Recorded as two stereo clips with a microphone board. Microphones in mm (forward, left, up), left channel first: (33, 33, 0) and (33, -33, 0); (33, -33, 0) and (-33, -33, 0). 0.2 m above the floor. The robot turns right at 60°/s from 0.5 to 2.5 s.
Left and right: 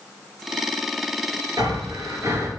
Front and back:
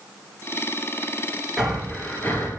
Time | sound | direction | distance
1.6 | breathing | 95° right | 2 m